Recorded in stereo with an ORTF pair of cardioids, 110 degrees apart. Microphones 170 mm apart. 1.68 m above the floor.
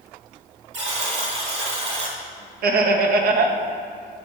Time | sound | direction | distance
0.7 | a buzzer | 40° right | 1.8 m
2.6 | laughter | 60° right | 0.9 m